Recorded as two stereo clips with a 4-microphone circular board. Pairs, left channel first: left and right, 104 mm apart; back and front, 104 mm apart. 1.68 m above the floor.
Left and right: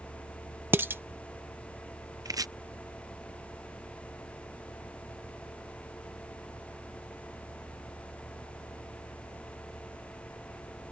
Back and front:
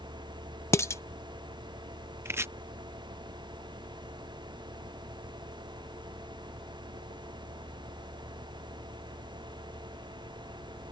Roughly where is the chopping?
Ahead right.